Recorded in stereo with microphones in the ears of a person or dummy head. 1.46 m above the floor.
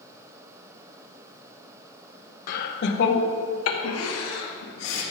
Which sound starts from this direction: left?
Laughter, at 2.5 s.